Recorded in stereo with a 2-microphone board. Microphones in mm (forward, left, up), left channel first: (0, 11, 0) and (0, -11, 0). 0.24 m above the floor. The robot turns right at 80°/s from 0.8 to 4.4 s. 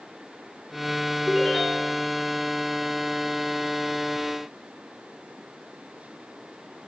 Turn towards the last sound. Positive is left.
turn(degrees=-130)